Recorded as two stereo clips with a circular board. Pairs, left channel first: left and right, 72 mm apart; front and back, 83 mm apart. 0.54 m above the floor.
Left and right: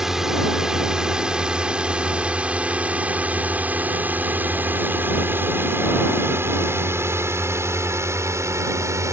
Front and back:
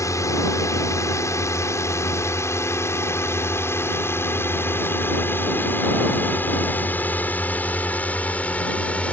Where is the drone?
10° right; by 9.1 s 70° right.